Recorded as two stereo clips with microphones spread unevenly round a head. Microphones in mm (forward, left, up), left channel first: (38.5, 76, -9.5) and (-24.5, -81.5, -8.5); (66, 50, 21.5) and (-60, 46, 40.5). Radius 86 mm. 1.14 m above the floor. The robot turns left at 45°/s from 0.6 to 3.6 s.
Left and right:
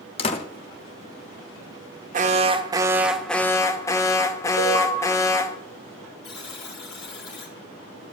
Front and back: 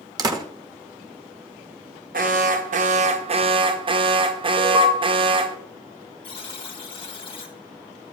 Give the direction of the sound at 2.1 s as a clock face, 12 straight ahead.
5 o'clock.